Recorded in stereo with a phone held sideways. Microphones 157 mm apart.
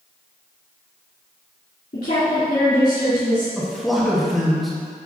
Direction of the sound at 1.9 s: 70° left (ahead or behind).